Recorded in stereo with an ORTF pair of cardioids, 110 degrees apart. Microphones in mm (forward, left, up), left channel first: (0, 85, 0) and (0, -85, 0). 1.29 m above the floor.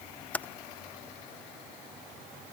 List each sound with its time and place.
0.3 s typing on a keyboard: 10° left